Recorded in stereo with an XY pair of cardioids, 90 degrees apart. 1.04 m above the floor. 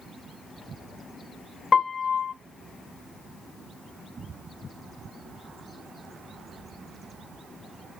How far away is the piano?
About 0.7 m.